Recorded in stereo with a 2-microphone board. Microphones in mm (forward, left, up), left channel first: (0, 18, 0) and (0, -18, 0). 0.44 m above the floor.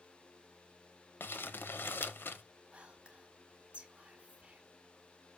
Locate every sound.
1.2 s crumpling: 80° left, 0.5 m
2.7 s whispering: 30° right (ahead or behind), 1.2 m